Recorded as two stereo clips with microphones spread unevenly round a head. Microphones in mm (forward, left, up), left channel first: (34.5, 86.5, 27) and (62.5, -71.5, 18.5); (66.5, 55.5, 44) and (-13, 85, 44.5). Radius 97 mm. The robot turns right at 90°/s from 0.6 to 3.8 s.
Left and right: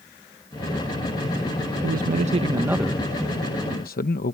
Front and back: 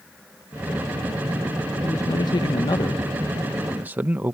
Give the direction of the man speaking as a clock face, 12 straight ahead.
3 o'clock.